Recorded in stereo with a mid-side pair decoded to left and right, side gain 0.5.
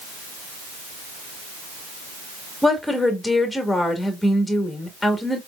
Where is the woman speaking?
10° left, 2.0 m.